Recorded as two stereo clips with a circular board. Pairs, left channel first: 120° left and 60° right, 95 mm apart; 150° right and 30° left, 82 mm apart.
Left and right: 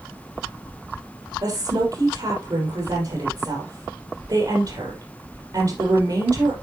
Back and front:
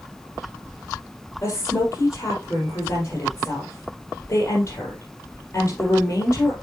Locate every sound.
1.4 s a woman speaking: 95° right, 4.5 m